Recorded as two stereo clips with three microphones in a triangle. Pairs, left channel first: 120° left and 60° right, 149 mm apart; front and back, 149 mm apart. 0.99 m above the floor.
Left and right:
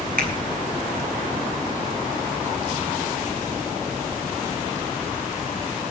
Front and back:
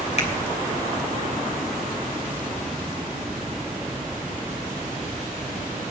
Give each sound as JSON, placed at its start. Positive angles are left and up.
{"t": 0.2, "sound": "a finger snap", "azimuth_deg": -45, "distance_m": 4.5}